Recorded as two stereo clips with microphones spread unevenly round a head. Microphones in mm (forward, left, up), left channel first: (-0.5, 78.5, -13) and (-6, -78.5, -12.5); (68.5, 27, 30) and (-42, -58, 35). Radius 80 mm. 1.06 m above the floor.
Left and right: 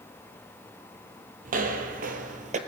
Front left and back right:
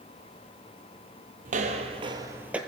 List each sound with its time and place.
1.4 s footsteps: 120° right, 2 m; by 2.6 s 60° right, 1.6 m